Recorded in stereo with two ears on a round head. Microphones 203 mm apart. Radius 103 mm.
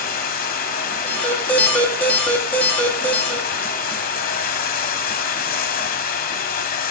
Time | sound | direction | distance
0.0 | running water | 40° left (ahead or behind) | 1.3 m
1.0 | an alarm | 5° left (ahead or behind) | 2.5 m